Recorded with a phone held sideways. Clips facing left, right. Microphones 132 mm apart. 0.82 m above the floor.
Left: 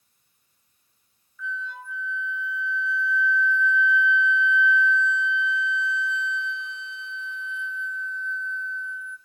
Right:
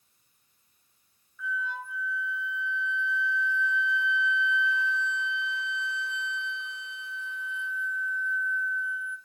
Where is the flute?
10° right (ahead or behind), 1.4 m.